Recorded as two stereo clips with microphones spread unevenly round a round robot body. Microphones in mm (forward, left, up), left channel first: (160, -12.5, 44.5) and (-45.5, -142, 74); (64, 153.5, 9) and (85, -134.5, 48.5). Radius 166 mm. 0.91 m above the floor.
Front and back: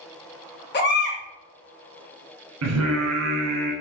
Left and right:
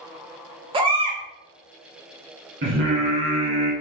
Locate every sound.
0.7 s a baby crying: 15° right, 1.4 m
2.6 s singing: 145° right, 1.8 m